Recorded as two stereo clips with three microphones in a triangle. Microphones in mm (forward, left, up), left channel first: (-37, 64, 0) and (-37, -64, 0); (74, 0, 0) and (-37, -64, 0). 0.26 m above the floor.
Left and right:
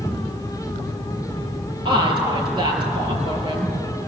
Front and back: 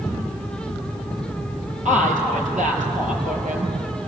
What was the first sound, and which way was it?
A woman speaking, 140° right.